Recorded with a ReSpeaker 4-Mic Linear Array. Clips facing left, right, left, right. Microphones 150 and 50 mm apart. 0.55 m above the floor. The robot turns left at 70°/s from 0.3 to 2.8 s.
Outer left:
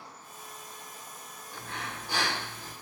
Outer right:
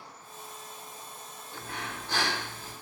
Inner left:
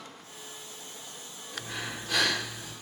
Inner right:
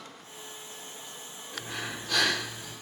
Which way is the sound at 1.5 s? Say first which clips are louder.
Outer right 1 dB, even; 155° right.